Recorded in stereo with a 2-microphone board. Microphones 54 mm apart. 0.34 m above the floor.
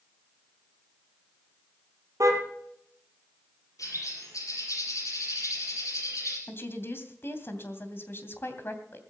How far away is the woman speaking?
About 2.5 m.